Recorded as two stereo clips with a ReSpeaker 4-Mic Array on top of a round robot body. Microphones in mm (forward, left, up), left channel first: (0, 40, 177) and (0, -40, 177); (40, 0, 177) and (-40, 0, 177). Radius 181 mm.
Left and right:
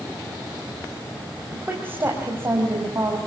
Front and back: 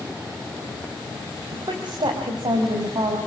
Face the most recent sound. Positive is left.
turn(degrees=-145)